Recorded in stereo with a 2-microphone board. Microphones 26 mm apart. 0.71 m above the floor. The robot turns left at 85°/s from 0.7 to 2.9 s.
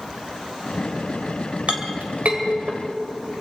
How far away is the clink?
About 1.8 m.